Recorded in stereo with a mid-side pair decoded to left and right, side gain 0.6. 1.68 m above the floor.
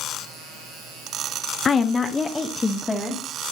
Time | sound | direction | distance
1.6 | a woman speaking | 35° left | 0.7 m